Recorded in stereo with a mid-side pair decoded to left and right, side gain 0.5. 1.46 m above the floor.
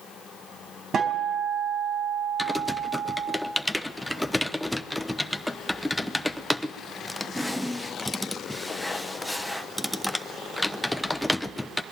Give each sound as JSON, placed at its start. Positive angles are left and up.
{"t": 0.9, "sound": "a guitar", "azimuth_deg": -45, "distance_m": 4.0}
{"t": 2.4, "sound": "typing on a keyboard", "azimuth_deg": 5, "distance_m": 0.9}